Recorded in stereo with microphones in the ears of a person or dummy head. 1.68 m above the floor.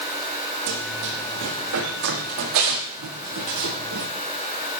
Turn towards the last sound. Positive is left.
turn(degrees=-75)  # may be behind; listen again after turning